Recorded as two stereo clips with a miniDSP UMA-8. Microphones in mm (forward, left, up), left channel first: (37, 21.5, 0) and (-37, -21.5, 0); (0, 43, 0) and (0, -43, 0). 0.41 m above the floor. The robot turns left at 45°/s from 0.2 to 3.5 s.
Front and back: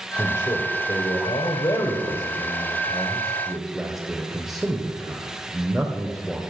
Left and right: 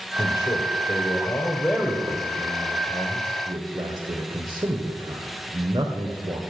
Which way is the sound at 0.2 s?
85° left.